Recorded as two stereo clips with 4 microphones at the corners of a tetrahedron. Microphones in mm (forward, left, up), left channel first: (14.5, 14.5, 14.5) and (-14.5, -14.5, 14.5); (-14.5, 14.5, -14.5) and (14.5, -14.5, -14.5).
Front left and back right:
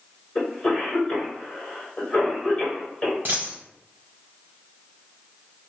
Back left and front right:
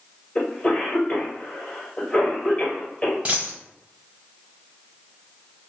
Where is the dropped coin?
100° right, 1.2 m.